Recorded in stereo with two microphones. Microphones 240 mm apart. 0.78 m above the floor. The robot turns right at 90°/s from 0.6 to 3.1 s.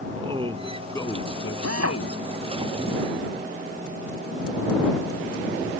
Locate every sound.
0.1 s a man speaking: 20° right; by 2.2 s 120° left
1.6 s a drill: 95° right; by 2.0 s 60° right